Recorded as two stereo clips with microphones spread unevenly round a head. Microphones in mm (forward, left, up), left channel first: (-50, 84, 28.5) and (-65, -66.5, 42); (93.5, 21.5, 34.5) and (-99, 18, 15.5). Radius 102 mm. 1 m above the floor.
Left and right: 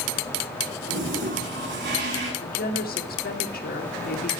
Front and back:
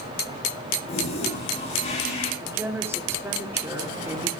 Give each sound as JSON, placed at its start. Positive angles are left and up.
{"t": 0.9, "sound": "a toilet flushing", "azimuth_deg": -60, "distance_m": 9.5}
{"t": 2.4, "sound": "a woman speaking", "azimuth_deg": 105, "distance_m": 3.0}